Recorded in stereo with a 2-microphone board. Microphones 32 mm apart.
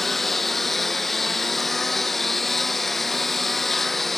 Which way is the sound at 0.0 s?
5° left (ahead or behind).